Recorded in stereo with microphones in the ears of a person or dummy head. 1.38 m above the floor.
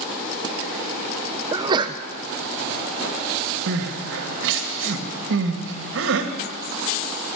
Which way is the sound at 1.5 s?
25° right (ahead or behind).